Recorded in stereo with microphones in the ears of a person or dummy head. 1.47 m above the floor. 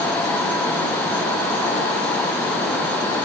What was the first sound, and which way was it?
Only background noise.